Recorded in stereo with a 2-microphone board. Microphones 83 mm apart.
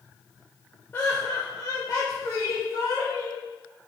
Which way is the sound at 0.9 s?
30° left (ahead or behind).